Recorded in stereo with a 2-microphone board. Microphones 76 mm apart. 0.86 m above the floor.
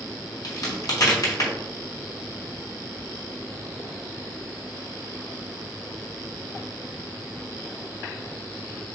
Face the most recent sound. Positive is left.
turn(degrees=55)  # may be behind; listen again after turning